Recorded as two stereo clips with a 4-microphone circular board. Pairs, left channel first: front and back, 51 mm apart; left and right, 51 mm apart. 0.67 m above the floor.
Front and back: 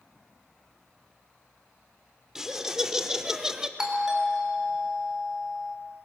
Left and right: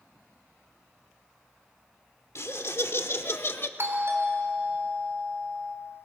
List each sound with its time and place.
2.4 s laughter: 100° left, 1.8 m; by 3.7 s 105° left, 1.0 m
3.8 s a doorbell: 100° right, 3 m